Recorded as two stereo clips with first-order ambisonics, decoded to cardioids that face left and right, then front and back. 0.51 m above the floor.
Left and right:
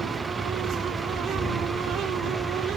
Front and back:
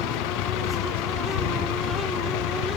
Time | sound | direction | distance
0.0 | a vehicle | 10° right | ?